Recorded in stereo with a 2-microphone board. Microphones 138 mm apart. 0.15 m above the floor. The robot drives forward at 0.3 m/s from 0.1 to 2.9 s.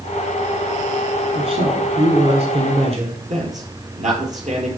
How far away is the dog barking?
I don't hear a dog barking.